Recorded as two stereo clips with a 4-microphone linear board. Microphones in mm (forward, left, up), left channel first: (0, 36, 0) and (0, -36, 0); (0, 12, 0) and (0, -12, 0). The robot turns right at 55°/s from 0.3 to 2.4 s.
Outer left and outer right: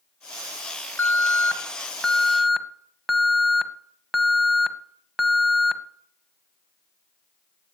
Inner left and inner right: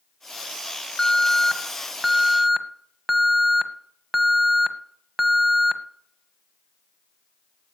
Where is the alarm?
25° left (ahead or behind), 1.0 m; by 5.8 s centre (ahead or behind), 1.0 m.